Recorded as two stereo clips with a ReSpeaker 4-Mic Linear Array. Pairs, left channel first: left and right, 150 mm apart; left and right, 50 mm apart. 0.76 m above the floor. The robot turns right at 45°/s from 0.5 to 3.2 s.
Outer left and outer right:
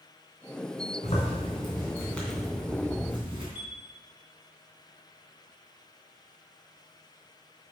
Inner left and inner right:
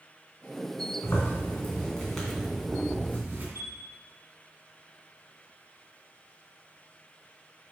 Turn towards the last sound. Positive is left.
turn(degrees=-80)